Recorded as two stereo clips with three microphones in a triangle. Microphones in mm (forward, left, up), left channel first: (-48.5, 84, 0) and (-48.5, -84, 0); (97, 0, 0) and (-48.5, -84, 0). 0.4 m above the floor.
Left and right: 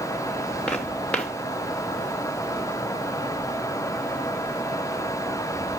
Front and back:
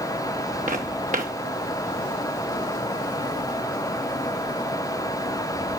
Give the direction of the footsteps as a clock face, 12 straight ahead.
6 o'clock.